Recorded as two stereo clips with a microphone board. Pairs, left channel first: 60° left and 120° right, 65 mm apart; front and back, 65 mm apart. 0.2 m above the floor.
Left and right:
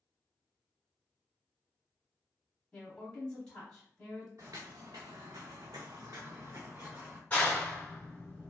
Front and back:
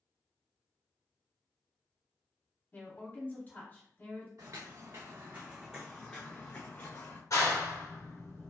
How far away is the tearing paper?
I don't hear tearing paper.